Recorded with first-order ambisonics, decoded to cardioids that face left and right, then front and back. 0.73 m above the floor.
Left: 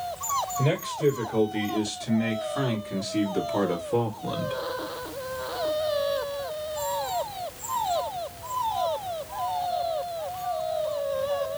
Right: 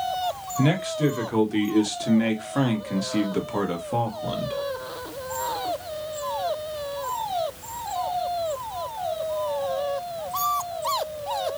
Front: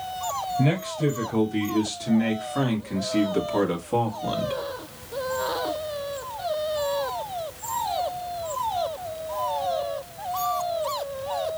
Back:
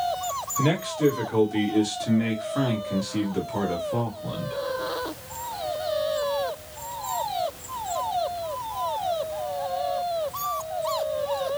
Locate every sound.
0.6 s a man speaking: 115° right, 2 m; by 4.5 s 25° right, 1.5 m